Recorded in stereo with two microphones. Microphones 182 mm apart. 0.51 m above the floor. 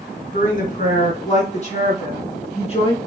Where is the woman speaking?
50° left (ahead or behind), 4 m; by 3.0 s 30° left (ahead or behind), 5 m.